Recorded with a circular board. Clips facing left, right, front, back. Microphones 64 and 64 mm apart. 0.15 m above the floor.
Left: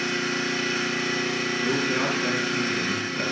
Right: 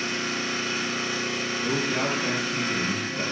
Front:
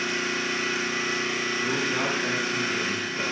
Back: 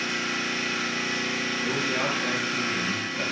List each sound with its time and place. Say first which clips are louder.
0.0 s an engine running: left 3 dB, front 1 dB; 80° left, 1.1 m
1.6 s a man speaking: left 1 dB, even; 40° left, 2 m